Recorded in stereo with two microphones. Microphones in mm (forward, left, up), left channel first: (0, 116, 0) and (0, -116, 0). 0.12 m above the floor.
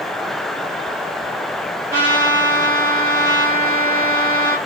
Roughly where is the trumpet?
Centre.